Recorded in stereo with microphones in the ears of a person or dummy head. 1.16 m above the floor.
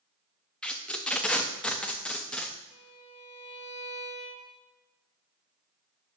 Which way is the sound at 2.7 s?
40° left (ahead or behind).